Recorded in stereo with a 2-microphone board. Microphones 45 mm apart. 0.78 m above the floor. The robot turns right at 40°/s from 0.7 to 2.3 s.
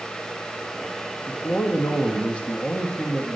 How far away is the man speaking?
About 1.1 m.